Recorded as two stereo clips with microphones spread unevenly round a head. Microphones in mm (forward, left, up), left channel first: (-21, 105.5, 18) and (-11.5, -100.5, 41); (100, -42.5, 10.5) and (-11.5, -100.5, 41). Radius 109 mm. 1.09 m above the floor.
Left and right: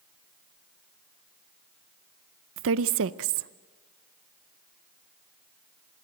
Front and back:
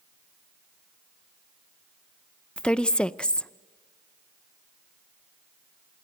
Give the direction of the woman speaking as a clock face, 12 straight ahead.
2 o'clock.